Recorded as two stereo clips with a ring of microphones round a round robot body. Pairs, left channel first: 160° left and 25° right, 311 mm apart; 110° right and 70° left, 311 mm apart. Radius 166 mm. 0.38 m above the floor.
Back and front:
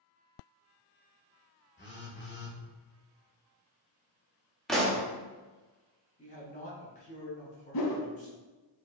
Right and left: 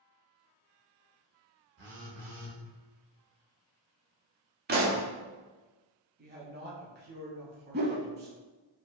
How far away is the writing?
I don't hear writing.